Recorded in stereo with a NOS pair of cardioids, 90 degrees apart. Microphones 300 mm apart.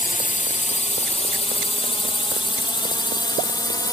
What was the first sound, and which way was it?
A drone, 25° left.